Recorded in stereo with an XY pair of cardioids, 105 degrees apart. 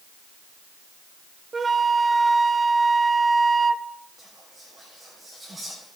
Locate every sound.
1.5 s a flute: 30° right, 0.6 m
4.2 s whispering: 5° right, 3.5 m